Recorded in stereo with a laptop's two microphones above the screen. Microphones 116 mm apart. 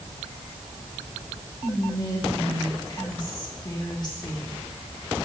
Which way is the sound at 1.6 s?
40° left (ahead or behind).